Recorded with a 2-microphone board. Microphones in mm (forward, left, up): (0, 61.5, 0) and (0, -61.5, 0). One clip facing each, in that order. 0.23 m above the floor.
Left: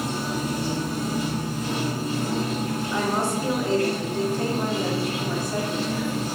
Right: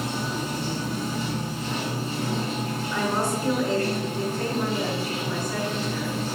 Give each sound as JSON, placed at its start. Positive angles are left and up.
{"t": 0.0, "sound": "running water", "side_deg": 45, "distance_m": 1.1}
{"t": 2.9, "sound": "a woman speaking", "side_deg": 30, "distance_m": 1.2}